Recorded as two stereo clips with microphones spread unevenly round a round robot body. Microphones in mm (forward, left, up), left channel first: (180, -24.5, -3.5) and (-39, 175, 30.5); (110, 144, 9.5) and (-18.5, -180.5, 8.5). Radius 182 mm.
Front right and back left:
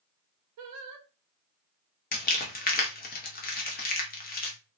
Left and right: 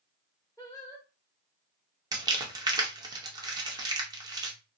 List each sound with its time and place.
0.6 s singing: 150° left, 0.5 m
2.1 s crumpling: 40° right, 0.8 m